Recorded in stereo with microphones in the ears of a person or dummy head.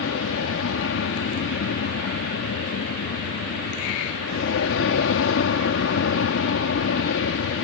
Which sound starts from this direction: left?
An aircraft, at 0.0 s.